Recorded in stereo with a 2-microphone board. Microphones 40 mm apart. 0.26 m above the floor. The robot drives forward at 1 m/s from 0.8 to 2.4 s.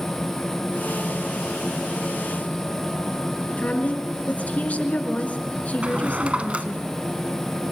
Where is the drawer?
35° right (ahead or behind), 1.4 m.